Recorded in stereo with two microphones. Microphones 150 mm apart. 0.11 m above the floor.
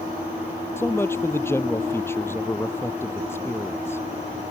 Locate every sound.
0.8 s a man speaking: 15° left (ahead or behind)